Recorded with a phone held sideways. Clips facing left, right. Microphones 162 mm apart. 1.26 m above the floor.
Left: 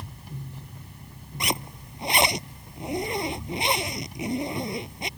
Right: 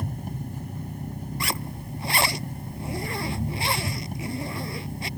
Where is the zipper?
20° left (ahead or behind).